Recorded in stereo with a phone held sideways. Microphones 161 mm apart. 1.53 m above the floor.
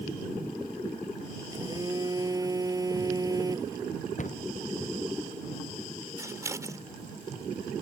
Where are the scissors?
20° right (ahead or behind).